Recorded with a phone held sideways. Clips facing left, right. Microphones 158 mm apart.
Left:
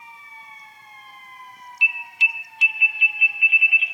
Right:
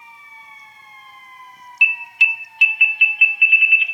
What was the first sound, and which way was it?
An alarm, 70° right (ahead or behind).